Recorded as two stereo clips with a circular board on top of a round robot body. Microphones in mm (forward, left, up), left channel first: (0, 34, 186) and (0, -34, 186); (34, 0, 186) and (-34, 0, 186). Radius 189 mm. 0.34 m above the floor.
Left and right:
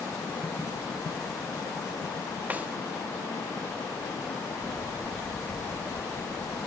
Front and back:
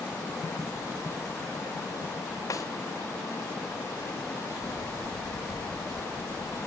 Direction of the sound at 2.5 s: 25° right.